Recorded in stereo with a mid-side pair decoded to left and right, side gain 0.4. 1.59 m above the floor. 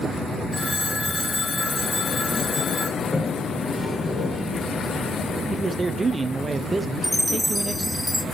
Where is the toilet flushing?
20° left, 1.9 m.